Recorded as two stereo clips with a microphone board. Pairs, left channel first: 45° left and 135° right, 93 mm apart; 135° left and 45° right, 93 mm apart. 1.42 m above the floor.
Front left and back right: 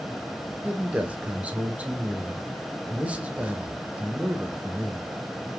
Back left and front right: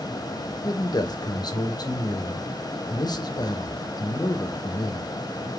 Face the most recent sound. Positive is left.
turn(degrees=155)